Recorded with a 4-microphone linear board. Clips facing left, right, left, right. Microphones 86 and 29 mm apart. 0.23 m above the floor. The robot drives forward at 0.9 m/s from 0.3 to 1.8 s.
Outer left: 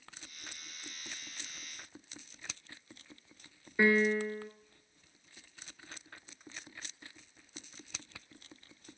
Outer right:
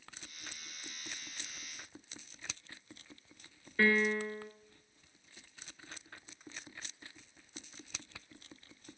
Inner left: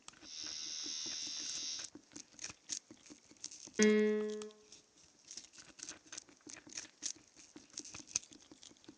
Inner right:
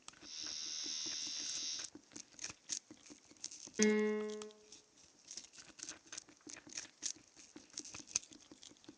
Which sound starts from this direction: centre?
A piano, at 3.8 s.